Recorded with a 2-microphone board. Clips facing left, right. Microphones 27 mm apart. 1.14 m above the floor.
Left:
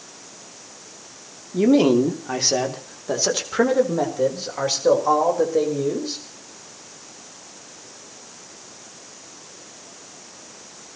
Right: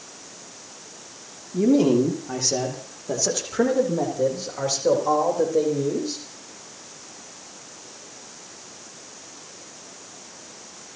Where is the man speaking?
45° left (ahead or behind), 2 m; by 6.2 s 20° left (ahead or behind), 4.5 m.